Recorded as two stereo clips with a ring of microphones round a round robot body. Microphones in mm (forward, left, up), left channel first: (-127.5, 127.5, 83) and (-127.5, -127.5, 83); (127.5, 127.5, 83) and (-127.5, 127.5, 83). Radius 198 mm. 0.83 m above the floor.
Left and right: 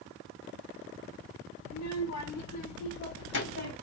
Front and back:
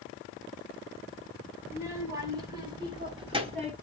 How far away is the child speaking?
About 4.5 m.